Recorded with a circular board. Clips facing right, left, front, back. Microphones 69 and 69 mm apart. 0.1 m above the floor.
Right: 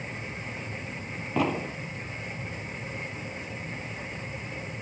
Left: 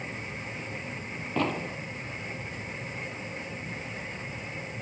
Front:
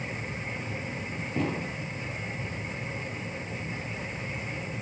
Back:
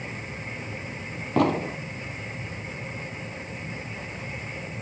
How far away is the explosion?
About 0.8 m.